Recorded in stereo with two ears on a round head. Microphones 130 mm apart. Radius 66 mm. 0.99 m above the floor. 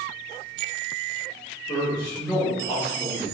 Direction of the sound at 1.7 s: 20° left (ahead or behind).